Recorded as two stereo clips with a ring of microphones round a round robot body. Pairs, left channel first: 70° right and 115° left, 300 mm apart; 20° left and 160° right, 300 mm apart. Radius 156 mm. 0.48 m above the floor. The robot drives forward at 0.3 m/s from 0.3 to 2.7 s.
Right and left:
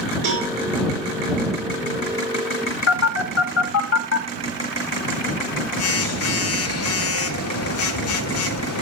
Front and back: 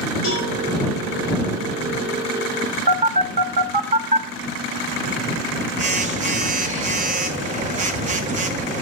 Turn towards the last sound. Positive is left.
turn(degrees=-95)